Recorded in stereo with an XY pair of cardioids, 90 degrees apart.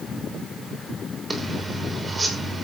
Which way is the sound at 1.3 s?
30° right.